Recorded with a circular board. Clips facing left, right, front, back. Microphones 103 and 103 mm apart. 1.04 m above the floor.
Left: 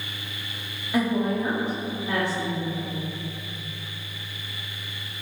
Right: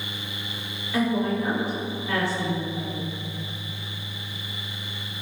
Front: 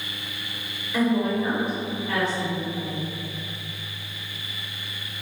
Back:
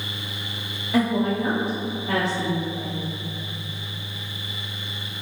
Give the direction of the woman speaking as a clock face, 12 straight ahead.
7 o'clock.